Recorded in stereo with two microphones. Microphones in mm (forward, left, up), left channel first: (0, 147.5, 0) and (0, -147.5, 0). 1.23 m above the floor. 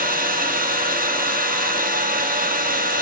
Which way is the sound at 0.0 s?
30° right (ahead or behind).